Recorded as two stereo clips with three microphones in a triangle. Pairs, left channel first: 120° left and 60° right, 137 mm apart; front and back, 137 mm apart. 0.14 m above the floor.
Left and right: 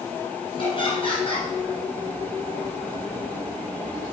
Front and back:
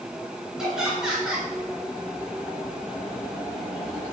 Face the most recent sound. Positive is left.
turn(degrees=95)